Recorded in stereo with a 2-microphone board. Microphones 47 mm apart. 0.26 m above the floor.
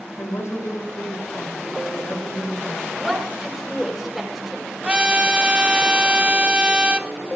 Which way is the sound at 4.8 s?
20° right (ahead or behind).